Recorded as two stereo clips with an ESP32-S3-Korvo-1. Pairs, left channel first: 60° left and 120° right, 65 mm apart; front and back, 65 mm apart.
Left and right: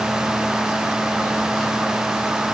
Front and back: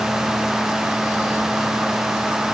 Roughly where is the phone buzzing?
I don't hear a phone buzzing.